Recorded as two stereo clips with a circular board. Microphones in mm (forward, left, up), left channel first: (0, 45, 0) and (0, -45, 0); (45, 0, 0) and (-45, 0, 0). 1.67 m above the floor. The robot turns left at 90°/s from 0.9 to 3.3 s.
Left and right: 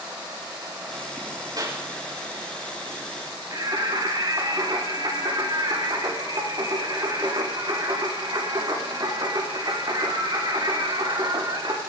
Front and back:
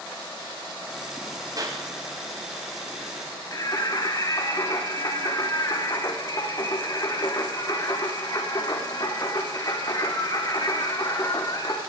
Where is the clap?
130° right, 5.5 m; by 1.8 s 155° right, 5.5 m.